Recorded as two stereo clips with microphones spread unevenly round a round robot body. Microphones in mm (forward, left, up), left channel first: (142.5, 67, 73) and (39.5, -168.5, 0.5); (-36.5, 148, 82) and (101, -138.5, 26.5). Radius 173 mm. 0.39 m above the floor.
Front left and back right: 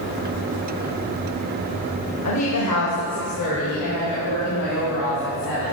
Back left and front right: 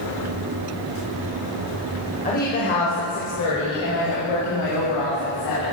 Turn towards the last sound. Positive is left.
turn(degrees=115)